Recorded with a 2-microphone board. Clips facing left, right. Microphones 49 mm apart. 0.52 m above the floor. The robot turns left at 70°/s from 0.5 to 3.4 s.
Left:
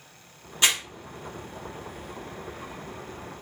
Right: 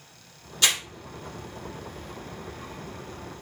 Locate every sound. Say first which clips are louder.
0.6 s crumpling: left 1 dB; 25° left (ahead or behind), 1.1 m; by 0.8 s 35° left (ahead or behind), 1.1 m